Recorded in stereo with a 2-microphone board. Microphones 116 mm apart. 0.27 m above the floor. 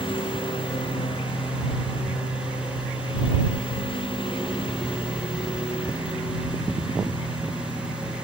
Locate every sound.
0.0 s a lawn mower: 45° left (ahead or behind)